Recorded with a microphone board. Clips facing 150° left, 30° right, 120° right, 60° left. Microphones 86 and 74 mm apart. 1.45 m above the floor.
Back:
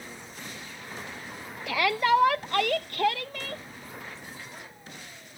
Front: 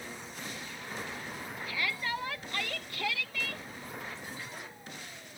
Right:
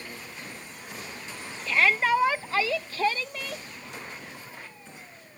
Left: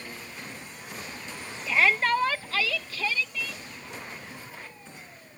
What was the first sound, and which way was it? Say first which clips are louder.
A shout: back 13 dB, even; 145° left.